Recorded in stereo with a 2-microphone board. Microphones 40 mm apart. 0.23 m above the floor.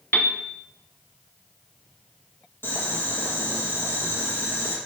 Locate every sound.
0.1 s a piano: 45° left (ahead or behind), 0.7 m
2.6 s boiling: 75° left (ahead or behind), 1.8 m